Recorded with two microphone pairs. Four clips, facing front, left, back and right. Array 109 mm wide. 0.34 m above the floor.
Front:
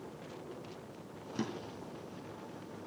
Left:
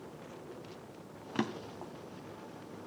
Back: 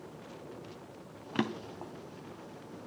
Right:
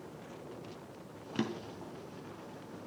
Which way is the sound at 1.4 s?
145° left.